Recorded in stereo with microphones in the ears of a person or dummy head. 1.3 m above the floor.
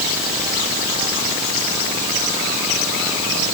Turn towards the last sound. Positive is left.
No sound to turn to.